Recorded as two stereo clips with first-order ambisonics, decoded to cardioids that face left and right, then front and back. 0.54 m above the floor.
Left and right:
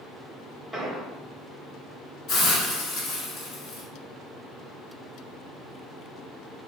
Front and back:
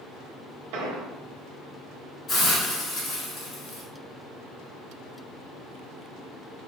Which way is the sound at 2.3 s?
65° left.